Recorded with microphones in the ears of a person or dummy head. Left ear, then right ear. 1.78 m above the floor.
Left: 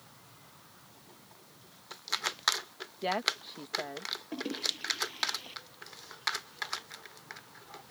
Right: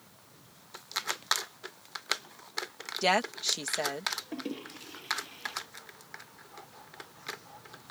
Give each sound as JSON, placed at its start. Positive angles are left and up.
{"t": 3.0, "sound": "a woman speaking", "side_deg": -85}
{"t": 4.3, "sound": "a toilet flushing", "side_deg": 0}